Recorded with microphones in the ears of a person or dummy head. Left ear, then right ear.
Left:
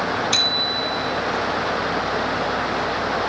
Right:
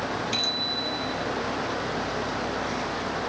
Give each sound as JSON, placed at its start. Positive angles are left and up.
{"t": 0.3, "sound": "a bicycle bell", "side_deg": 40, "distance_m": 5.5}